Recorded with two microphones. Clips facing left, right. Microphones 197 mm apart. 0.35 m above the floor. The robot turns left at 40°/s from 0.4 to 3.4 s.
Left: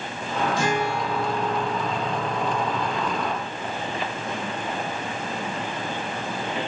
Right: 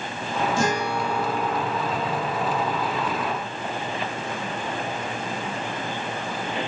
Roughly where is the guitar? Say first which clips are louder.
Even; behind right.